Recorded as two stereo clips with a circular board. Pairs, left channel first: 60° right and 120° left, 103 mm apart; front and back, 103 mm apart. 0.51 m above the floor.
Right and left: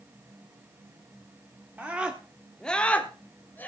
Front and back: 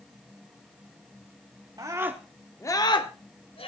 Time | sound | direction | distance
1.8 | a scream | 175° right | 1.2 m